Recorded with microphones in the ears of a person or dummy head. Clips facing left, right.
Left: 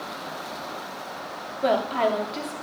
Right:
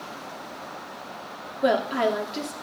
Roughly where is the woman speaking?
Centre.